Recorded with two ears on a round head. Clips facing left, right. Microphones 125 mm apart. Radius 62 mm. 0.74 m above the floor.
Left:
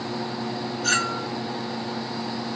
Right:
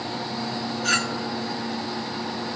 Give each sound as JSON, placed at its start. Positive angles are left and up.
{"t": 0.8, "sound": "a clink", "side_deg": 45, "distance_m": 2.0}